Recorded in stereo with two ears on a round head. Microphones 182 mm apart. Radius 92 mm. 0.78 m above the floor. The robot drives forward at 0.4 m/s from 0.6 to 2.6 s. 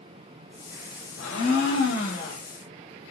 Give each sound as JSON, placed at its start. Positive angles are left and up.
{"t": 1.2, "sound": "a blender", "side_deg": 70, "distance_m": 1.0}